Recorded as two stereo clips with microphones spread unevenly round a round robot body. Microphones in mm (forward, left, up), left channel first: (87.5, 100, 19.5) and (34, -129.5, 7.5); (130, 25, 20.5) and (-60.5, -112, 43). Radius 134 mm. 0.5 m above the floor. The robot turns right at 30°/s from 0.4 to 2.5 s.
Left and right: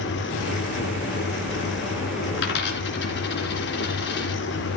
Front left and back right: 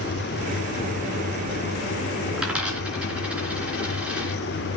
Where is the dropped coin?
125° left, 2.5 m; by 4.4 s 130° left, 2.5 m.